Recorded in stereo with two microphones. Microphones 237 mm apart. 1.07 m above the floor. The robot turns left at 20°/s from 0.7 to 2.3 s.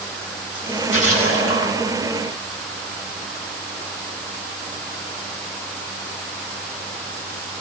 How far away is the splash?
About 10 m.